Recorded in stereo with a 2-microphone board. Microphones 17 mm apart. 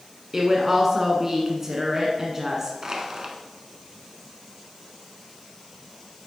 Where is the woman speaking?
20° right (ahead or behind), 1.1 m.